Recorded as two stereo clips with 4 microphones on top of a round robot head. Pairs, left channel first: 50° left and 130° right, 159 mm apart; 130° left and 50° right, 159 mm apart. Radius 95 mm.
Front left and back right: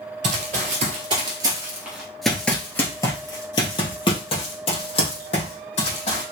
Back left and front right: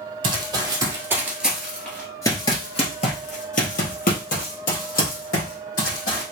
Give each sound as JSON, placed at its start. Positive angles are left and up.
{"t": 0.2, "sound": "running footsteps", "azimuth_deg": -100, "distance_m": 1.4}